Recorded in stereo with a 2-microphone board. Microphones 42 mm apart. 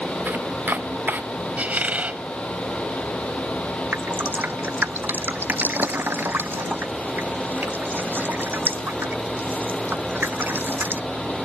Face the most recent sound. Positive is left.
turn(degrees=-55)  # may be behind; listen again after turning